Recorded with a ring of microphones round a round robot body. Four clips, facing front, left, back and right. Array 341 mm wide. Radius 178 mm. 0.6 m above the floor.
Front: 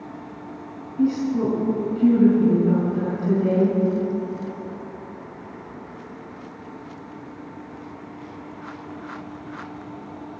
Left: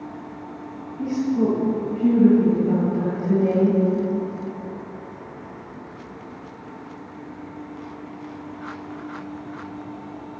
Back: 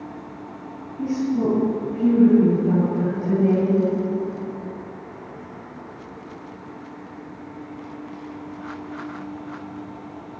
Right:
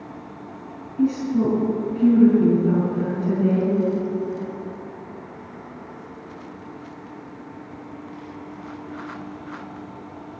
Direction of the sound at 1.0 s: 40° right.